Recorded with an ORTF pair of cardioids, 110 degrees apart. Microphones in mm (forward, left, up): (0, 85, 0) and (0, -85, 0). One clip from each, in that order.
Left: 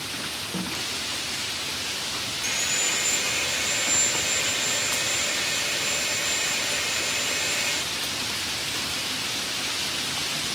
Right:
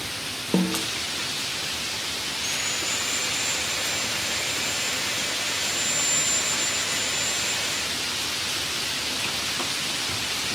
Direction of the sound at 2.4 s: 15° left.